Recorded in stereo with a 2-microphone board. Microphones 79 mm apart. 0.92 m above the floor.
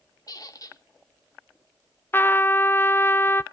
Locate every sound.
0.3 s a squeak: 50° left (ahead or behind), 1.3 m
2.1 s a trumpet: 25° left (ahead or behind), 0.5 m